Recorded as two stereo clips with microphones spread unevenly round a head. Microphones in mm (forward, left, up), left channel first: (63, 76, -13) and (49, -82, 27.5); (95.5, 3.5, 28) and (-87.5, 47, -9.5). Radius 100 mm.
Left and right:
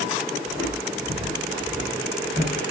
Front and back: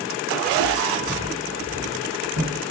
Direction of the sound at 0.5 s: 150° right.